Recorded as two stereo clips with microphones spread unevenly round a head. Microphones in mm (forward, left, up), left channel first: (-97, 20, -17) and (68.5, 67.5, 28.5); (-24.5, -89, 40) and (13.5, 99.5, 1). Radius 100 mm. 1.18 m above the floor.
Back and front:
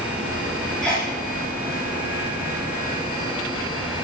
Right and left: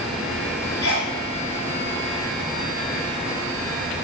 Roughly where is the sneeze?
Ahead right.